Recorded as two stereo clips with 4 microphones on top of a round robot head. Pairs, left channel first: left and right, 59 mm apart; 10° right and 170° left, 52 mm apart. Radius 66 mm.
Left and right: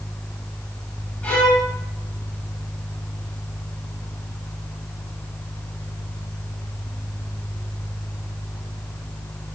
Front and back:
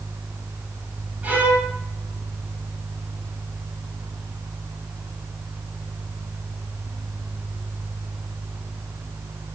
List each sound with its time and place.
1.2 s a violin: 145° left, 1.3 m